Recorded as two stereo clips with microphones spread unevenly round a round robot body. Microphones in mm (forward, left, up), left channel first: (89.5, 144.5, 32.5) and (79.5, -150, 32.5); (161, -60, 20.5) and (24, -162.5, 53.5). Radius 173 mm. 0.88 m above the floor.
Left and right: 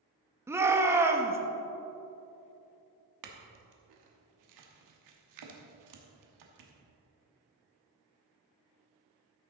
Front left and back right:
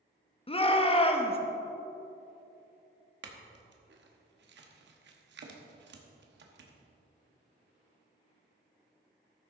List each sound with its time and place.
0.5 s a shout: 10° right, 1.2 m
3.2 s a clink: 125° right, 1.1 m